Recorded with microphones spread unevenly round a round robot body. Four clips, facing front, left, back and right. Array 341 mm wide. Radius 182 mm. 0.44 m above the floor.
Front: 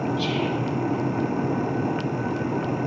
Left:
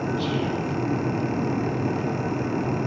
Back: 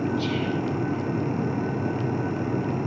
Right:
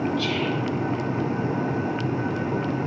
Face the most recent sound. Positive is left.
turn(degrees=-10)